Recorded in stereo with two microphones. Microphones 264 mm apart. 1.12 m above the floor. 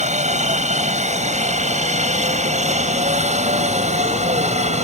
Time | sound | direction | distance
0.0 | a helicopter | 25° right (ahead or behind) | ?